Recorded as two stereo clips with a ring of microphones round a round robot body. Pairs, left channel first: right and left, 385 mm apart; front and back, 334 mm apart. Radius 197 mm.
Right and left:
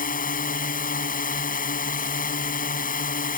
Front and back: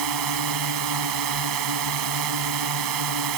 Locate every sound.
0.0 s a drone: 160° right